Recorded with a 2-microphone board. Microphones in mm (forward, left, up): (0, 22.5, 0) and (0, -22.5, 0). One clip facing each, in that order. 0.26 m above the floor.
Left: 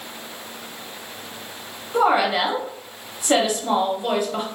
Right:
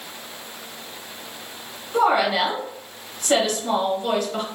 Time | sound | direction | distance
1.9 | a woman speaking | 10° left (ahead or behind) | 1.0 m